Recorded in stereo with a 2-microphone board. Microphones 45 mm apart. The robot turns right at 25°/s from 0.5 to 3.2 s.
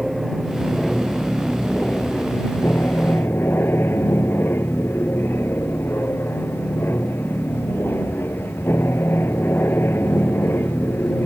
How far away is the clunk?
No clunk in this recording.